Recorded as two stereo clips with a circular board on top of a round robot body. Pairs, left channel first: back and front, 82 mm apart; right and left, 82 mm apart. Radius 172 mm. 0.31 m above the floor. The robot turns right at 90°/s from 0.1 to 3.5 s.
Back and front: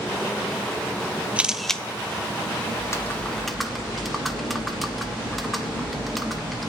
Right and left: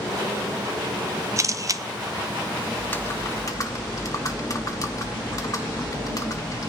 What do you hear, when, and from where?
1.4 s a camera shutter: 65° left, 0.9 m; by 1.8 s 110° left, 0.9 m
2.8 s typing on a keyboard: 155° right, 1.9 m; by 6.7 s 90° right, 1.9 m